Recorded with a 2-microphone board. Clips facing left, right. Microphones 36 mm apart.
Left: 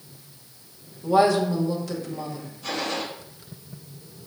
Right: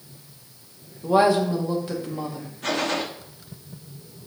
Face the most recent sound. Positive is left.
turn(degrees=-70)  # may be behind; listen again after turning